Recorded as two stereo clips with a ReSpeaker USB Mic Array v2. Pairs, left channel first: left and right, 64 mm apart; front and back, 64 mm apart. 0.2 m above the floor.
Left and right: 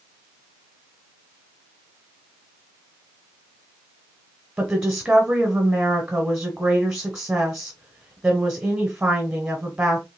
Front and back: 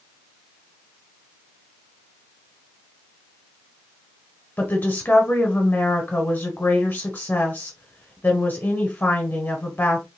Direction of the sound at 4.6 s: 20° right.